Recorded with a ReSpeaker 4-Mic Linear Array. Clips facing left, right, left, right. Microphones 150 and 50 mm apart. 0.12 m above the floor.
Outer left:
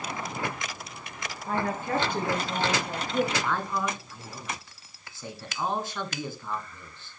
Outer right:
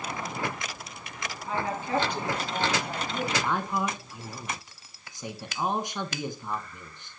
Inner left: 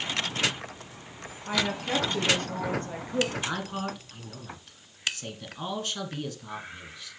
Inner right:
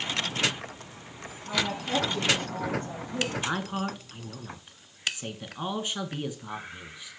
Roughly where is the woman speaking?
Left.